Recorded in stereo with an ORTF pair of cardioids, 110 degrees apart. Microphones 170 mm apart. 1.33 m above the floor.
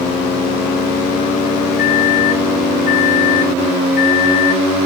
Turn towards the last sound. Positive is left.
turn(degrees=65)